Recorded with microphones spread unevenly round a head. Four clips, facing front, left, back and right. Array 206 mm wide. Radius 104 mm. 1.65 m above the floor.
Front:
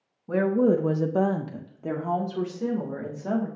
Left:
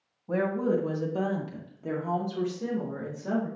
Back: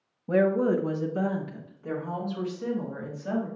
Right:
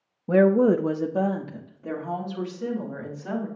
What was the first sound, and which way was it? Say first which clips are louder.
A woman speaking: right 9 dB, front 1 dB; 105° right.